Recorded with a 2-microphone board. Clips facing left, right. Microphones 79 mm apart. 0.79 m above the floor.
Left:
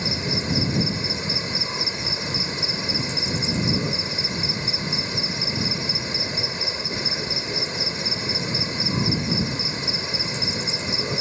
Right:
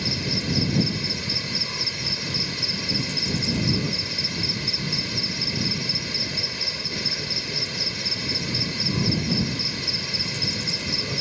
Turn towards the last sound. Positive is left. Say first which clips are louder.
# left 1 dB
turn(degrees=30)  # may be behind; listen again after turning